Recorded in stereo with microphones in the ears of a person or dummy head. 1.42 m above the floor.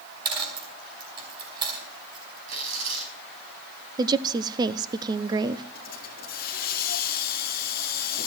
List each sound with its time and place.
0.2 s a dropped coin: 25° right (ahead or behind), 4 m
2.5 s tearing paper: 70° right (ahead or behind), 5 m
4.0 s a woman speaking: 25° right (ahead or behind), 0.6 m
5.8 s a hiss: 50° left (ahead or behind), 1.1 m